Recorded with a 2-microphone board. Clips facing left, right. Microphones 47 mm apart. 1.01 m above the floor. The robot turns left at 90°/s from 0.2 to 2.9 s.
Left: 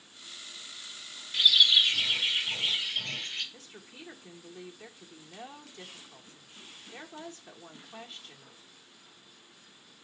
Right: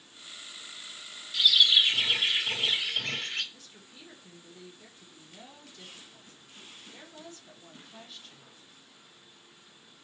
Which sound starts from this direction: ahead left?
A bird, at 1.3 s.